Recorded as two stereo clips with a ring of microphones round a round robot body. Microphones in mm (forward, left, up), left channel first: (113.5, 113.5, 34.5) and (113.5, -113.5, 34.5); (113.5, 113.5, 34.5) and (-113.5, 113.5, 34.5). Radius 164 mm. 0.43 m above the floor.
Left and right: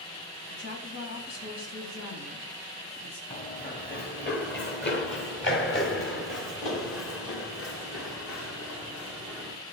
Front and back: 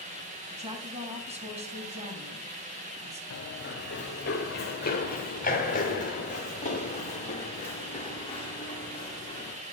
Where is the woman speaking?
120° left, 3 m.